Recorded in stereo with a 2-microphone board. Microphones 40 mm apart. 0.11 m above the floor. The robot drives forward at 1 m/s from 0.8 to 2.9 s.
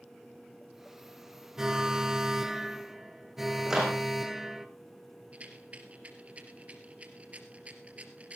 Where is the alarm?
15° right (ahead or behind), 0.9 m; by 4.7 s 10° right (ahead or behind), 1.2 m.